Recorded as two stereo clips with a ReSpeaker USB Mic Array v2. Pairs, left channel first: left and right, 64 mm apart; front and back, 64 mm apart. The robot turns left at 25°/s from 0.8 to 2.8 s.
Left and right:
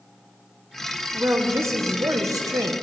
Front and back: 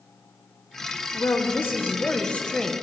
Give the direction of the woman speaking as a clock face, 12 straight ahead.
1 o'clock.